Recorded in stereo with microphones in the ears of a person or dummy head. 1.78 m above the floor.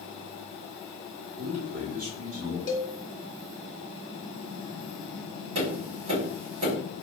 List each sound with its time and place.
1.4 s a man speaking: 70° right (ahead or behind), 1.3 m; by 2.6 s 80° right, 2 m
2.7 s a cowbell: 30° left (ahead or behind), 0.7 m
5.5 s tapping: 60° right (ahead or behind), 2.0 m